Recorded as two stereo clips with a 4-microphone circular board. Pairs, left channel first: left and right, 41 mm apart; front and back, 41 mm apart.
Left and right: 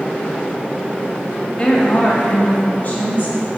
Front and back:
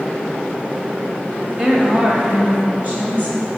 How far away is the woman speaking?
About 1.1 m.